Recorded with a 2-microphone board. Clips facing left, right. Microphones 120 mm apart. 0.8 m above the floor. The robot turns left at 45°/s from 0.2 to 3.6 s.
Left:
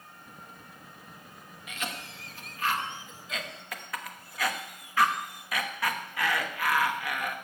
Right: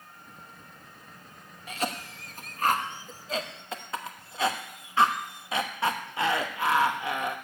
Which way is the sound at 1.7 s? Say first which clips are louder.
Right 6 dB; 35° right (ahead or behind).